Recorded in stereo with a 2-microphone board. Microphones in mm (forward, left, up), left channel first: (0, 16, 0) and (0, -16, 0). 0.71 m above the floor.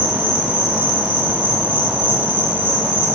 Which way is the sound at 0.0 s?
80° right.